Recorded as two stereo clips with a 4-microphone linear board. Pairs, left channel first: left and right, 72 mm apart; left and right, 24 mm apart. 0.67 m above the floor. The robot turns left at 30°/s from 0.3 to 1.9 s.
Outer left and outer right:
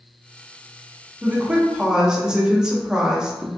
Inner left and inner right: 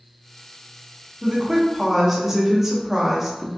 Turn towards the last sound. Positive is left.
turn(degrees=-10)  # may be behind; listen again after turning